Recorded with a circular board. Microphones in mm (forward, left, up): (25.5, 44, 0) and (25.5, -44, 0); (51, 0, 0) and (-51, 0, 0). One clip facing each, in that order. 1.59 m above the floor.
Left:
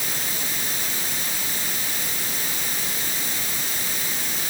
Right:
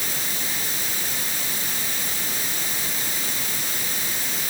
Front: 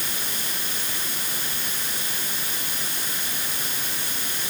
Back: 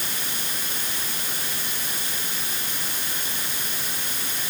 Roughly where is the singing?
No singing in this recording.